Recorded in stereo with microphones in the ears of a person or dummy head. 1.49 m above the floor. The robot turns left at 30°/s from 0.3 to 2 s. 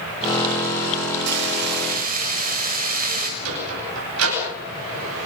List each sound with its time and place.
1.3 s frying: 65° right (ahead or behind), 5 m; by 3.3 s 45° right (ahead or behind), 5 m
3.4 s a sliding door: 90° right, 9 m